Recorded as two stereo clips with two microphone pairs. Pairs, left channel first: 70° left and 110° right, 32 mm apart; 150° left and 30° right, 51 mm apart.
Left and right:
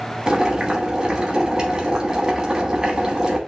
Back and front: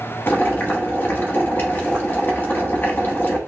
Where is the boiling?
170° right, 1.1 m.